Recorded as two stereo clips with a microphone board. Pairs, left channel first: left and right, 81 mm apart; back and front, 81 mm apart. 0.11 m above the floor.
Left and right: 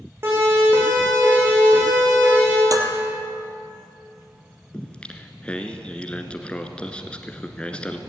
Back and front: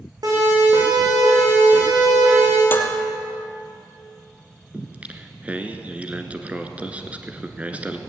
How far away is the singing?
About 1.4 m.